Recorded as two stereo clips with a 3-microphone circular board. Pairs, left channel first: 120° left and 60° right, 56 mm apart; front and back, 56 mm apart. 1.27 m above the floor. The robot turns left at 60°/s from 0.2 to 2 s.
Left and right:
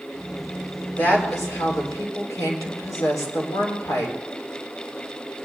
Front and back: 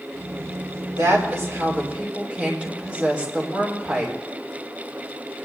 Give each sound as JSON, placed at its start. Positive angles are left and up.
{"t": 1.0, "sound": "a woman speaking", "azimuth_deg": 170, "distance_m": 3.5}